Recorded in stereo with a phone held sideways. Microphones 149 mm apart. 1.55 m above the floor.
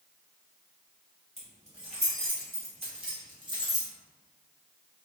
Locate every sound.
1.4 s keys jangling: 45° right (ahead or behind), 1.5 m; by 3.9 s 20° right (ahead or behind), 0.9 m